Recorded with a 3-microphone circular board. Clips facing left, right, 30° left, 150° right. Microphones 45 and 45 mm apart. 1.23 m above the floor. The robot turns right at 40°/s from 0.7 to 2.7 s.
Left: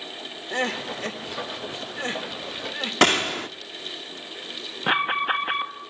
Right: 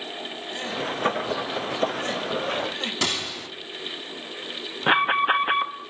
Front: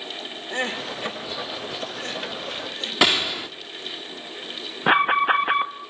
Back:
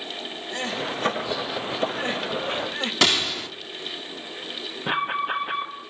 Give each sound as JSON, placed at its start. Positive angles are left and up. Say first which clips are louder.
{"t": 0.5, "sound": "crying", "louder": "left 3 dB, front 1 dB", "azimuth_deg": 85, "distance_m": 1.7}
{"t": 3.0, "sound": "a gunshot", "louder": "left 12 dB, front 2 dB", "azimuth_deg": 105, "distance_m": 1.1}
{"t": 4.9, "sound": "an alarm", "louder": "right 3 dB, front 7 dB", "azimuth_deg": -10, "distance_m": 1.3}